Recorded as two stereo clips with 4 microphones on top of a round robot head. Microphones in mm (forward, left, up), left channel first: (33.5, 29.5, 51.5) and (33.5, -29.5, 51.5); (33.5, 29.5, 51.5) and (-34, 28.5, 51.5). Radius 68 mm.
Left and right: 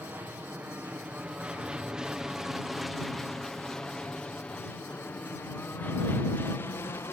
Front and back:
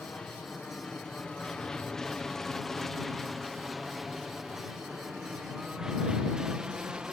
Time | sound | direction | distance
0.0 | an aircraft | 60° right | ?